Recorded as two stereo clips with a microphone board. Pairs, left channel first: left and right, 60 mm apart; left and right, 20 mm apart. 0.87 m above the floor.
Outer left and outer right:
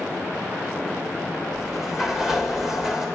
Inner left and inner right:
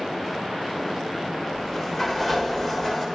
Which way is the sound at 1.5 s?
5° right (ahead or behind).